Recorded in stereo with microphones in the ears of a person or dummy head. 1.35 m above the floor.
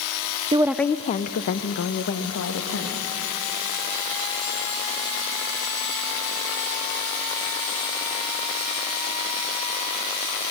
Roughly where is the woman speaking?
Right.